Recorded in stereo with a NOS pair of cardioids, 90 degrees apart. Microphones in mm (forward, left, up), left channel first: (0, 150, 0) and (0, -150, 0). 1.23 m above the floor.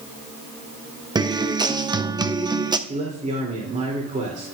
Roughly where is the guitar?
Ahead.